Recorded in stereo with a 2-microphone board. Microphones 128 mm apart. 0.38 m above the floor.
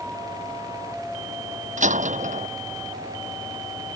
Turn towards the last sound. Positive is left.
turn(degrees=-65)  # may be behind; listen again after turning